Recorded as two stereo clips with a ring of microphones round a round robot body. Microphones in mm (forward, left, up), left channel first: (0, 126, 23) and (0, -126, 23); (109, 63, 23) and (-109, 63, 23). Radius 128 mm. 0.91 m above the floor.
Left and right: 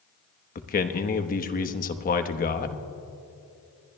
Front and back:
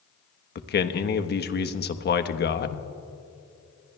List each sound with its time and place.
0.6 s a man speaking: 35° left, 1.0 m